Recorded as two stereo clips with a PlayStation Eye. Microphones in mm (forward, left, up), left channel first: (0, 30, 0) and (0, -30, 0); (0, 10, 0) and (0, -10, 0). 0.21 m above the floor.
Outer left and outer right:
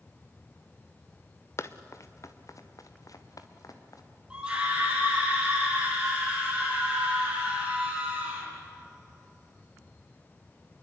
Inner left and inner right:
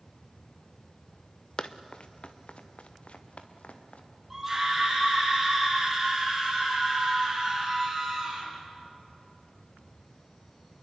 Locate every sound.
1.6 s running footsteps: 50° left (ahead or behind), 1.5 m; by 4.0 s 75° left (ahead or behind), 3.5 m
4.3 s a scream: 15° right (ahead or behind), 8.5 m